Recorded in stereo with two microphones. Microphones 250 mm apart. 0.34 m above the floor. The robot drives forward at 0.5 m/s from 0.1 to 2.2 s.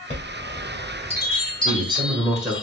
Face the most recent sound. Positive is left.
turn(degrees=-5)  # may be behind; listen again after turning